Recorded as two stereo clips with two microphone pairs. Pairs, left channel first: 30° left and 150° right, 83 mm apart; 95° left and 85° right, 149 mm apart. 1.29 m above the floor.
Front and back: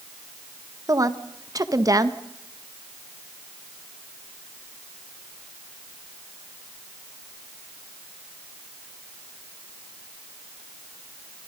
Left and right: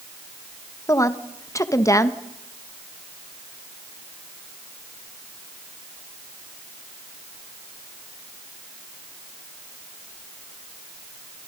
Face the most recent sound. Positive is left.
turn(degrees=165)